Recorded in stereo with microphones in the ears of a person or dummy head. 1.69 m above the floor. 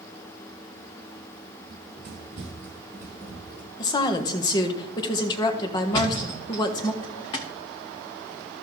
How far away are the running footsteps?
About 2.0 m.